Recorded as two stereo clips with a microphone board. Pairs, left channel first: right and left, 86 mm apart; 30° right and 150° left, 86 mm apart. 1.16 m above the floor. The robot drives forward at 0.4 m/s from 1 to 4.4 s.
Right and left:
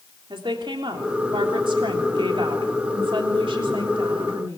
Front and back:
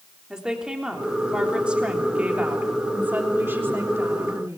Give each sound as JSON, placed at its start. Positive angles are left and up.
{"t": 0.3, "sound": "a woman speaking", "azimuth_deg": 70, "distance_m": 3.5}